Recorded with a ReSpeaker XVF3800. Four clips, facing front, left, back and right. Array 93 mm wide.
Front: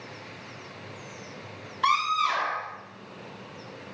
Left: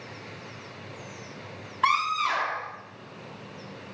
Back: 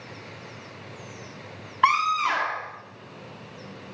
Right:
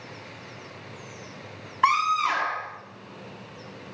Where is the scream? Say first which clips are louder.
Right 3 dB, back 3 dB; 155° right, 1.6 m.